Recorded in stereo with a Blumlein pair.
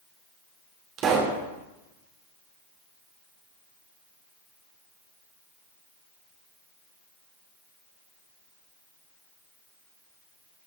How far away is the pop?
About 1.8 m.